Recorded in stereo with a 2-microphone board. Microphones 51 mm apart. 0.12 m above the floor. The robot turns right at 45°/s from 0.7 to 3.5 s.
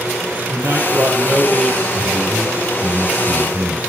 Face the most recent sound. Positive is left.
turn(degrees=-130)